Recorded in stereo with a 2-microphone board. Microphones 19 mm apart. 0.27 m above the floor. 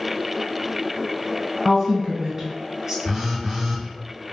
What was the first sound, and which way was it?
A woman speaking, 25° right (ahead or behind).